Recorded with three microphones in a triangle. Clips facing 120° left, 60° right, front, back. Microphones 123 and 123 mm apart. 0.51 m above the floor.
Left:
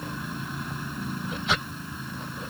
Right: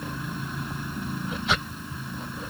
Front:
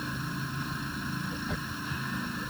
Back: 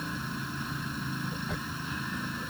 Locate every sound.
Only background noise.